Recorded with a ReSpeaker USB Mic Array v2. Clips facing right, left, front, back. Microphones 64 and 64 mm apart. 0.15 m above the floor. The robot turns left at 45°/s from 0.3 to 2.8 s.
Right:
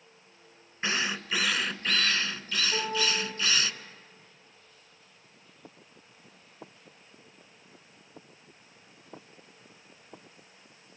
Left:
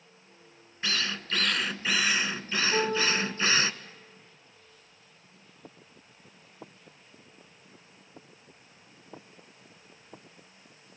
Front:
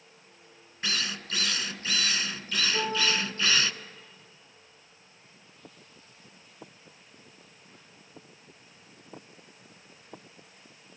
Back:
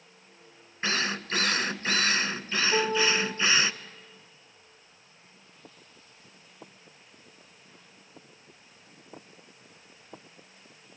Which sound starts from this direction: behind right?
A drill, at 0.8 s.